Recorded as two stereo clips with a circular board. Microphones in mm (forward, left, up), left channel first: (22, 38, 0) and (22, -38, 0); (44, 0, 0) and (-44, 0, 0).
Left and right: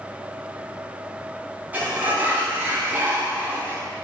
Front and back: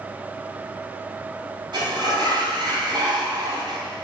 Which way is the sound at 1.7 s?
155° right.